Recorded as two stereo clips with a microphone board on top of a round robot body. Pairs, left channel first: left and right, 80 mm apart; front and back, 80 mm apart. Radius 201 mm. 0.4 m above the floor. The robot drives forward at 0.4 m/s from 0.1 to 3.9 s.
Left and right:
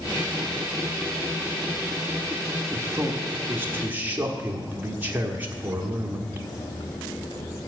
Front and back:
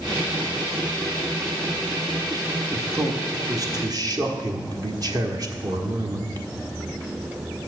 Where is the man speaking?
140° right, 1.2 m; by 6.5 s 155° right, 1.5 m.